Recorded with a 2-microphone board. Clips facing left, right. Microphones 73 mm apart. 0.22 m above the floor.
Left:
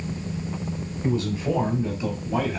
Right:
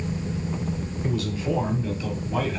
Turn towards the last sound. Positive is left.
turn(degrees=15)  # may be behind; listen again after turning